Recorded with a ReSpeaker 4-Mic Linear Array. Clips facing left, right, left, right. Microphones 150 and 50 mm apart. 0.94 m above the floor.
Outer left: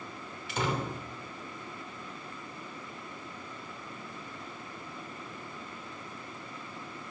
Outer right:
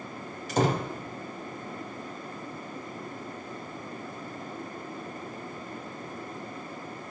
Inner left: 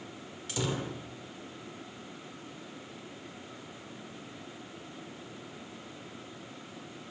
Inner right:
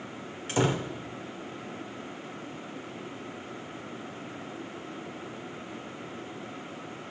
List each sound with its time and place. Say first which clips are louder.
0.5 s a door slam: outer right 6 dB, inner right 7 dB; 40° right (ahead or behind), 3 m